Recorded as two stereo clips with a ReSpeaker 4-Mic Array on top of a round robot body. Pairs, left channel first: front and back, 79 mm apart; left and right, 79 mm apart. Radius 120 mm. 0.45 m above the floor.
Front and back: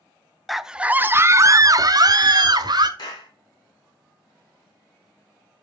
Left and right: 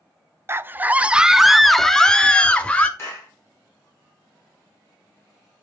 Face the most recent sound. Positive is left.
turn(degrees=35)